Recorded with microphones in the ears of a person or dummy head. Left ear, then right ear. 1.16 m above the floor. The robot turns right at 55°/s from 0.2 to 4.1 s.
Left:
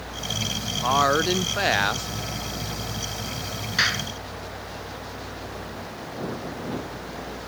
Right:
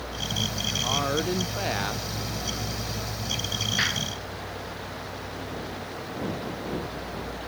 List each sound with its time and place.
0.8 s a woman speaking: 75° left; by 2.1 s 140° left
3.8 s a clap: 20° left (ahead or behind); by 4.1 s 35° left (ahead or behind)